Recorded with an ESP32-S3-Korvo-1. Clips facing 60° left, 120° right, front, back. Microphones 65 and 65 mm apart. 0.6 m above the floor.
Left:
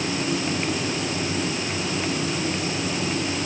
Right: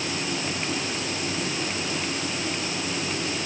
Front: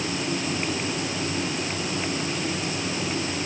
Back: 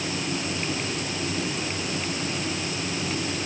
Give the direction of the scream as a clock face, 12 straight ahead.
No scream in this recording.